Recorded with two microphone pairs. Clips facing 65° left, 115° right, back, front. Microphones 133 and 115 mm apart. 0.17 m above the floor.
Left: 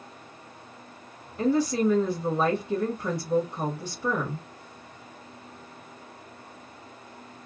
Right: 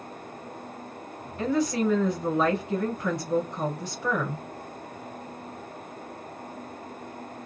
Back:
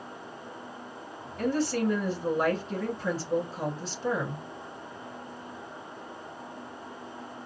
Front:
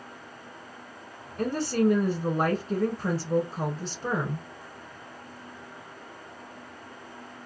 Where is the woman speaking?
5° left, 1.2 m.